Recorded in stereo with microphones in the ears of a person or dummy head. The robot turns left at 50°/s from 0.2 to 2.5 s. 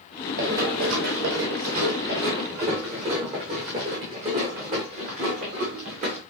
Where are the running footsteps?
40° right (ahead or behind), 3 m; by 6.2 s 35° right (ahead or behind), 5.5 m.